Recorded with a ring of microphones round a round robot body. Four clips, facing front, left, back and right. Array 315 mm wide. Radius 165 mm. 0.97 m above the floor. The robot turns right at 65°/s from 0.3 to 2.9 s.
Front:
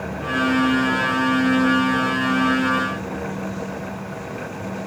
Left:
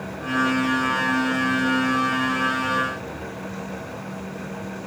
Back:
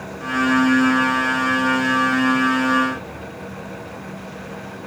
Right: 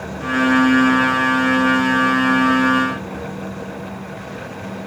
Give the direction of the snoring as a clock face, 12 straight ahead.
I don't hear snoring.